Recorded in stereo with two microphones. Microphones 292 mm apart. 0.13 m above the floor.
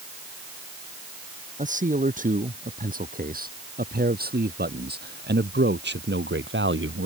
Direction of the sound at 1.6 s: 25° right (ahead or behind).